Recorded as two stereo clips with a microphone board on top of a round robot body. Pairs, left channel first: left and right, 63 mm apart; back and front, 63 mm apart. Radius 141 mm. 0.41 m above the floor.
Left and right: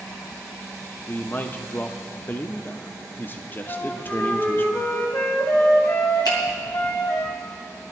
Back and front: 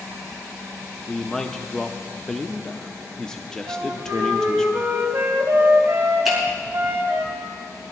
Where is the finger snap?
85° left, 4.5 m.